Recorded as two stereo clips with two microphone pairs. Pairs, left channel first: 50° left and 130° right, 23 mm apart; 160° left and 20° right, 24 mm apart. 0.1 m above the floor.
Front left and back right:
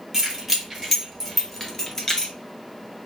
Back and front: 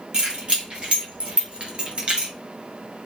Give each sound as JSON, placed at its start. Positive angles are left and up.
{"t": 0.1, "sound": "keys jangling", "azimuth_deg": -60, "distance_m": 2.0}